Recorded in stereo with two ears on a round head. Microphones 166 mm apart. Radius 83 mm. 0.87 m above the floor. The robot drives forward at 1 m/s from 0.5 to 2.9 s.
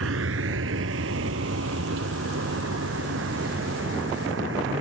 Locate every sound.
0.0 s a vehicle: 80° right; by 4.8 s 65° right (ahead or behind)